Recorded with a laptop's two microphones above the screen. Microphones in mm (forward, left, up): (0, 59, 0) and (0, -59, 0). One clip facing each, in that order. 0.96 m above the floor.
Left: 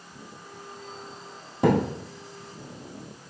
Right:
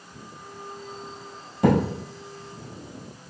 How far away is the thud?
About 2.5 m.